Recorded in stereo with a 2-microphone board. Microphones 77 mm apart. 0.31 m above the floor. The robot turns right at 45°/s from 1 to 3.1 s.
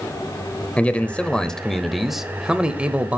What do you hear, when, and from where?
0.8 s a man speaking: 15° left (ahead or behind), 0.9 m; by 3.2 s 20° right (ahead or behind), 0.9 m